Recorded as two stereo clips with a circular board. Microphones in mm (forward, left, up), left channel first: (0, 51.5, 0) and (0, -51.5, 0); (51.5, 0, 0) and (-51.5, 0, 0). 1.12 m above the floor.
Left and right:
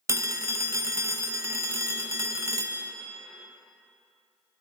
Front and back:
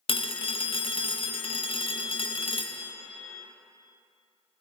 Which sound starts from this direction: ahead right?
A phone ringing, at 0.1 s.